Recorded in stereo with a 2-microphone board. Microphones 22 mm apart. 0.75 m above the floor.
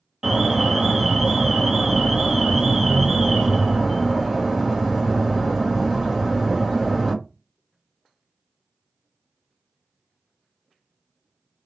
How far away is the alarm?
About 1.2 m.